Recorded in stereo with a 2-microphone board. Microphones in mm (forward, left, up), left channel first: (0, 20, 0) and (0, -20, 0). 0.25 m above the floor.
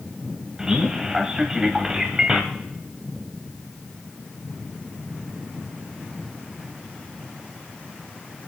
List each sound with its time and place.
0.6 s a man speaking: 15° right (ahead or behind), 1.0 m